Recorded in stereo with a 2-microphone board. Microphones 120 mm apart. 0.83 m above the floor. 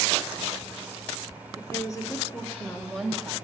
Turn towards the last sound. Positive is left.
turn(degrees=-5)  # may be behind; listen again after turning